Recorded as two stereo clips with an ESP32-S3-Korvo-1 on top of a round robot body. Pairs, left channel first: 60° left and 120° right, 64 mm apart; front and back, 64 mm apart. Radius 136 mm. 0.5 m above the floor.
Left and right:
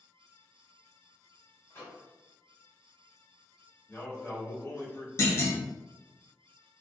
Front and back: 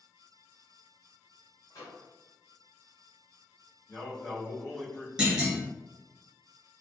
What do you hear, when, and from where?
1.7 s a microwave: 15° left, 1.8 m
3.9 s a man speaking: 15° left, 1.6 m
5.2 s a clunk: 100° left, 1.0 m